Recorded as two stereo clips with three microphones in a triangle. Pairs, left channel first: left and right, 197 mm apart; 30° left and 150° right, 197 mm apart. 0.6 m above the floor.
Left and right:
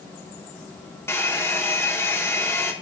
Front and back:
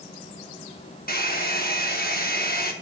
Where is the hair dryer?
15° left, 0.9 m.